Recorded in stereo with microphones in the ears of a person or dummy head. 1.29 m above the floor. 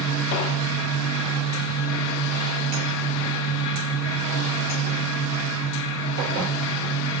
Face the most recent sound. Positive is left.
turn(degrees=70)  # may be behind; listen again after turning